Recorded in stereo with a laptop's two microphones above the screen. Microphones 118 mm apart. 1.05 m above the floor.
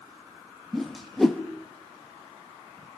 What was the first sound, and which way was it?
A whoosh, centre (ahead or behind).